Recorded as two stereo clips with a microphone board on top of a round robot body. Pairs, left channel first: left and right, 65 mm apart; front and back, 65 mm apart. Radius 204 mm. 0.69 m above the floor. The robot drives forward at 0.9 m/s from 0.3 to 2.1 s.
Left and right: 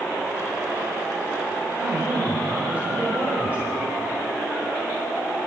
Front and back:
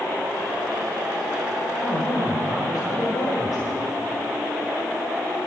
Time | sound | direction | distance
1.8 | a man speaking | 20° right | 4.5 m